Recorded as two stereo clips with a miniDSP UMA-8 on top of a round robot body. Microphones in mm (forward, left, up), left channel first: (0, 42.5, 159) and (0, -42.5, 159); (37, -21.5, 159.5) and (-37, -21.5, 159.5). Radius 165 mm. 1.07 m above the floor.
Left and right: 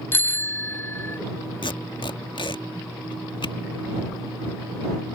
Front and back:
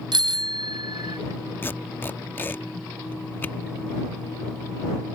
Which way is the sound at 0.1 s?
155° left.